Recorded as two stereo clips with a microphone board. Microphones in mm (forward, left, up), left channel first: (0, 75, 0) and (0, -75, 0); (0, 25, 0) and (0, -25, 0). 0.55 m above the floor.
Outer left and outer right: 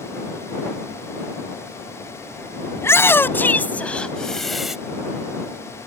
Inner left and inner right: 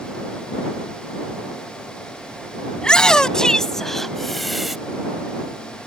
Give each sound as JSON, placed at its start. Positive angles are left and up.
{"t": 2.8, "sound": "a shout", "side_deg": 15}